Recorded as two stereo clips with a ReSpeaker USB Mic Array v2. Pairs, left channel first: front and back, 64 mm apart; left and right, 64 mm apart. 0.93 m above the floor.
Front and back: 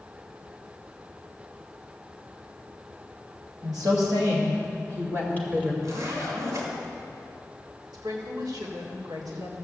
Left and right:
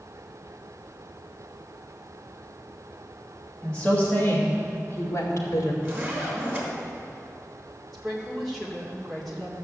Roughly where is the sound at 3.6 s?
Behind.